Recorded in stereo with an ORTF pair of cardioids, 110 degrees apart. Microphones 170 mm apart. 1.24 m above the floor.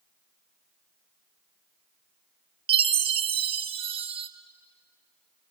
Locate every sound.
2.7 s a chime: 35° right, 1.0 m